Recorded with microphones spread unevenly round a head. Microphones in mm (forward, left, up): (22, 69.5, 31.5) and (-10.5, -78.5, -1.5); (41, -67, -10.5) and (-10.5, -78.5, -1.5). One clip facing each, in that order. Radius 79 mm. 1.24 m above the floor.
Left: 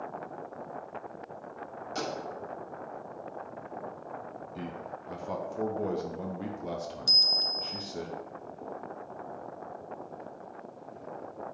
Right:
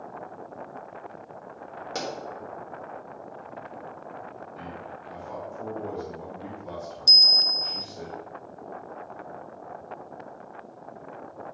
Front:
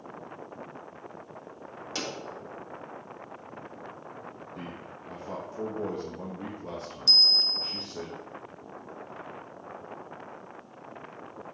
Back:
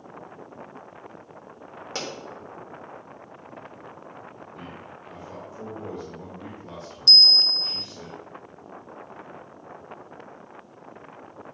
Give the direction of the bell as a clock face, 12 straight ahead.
5 o'clock.